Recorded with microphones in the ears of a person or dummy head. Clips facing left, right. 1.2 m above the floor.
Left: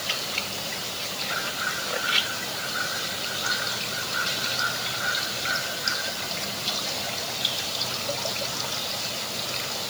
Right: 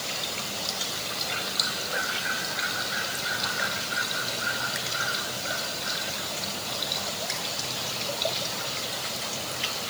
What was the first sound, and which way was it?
Only background noise.